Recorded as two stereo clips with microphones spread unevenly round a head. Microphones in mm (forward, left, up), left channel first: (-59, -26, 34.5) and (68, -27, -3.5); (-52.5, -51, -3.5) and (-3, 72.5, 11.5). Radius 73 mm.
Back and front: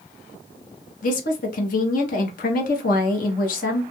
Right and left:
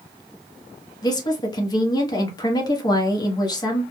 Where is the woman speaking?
165° right, 0.8 m.